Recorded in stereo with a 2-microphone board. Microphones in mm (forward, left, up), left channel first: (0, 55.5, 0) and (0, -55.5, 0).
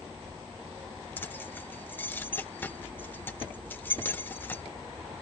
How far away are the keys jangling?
About 0.7 m.